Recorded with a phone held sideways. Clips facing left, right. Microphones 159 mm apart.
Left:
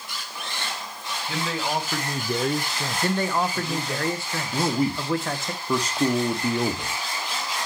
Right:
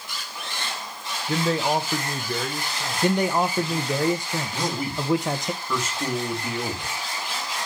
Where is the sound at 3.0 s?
15° right (ahead or behind), 0.6 m.